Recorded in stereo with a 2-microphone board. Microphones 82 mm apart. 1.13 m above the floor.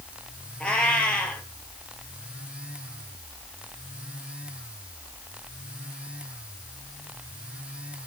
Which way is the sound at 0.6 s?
10° left (ahead or behind).